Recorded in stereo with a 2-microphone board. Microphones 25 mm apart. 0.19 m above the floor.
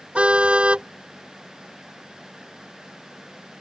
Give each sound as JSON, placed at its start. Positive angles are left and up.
{"t": 0.1, "sound": "a car horn", "side_deg": -50}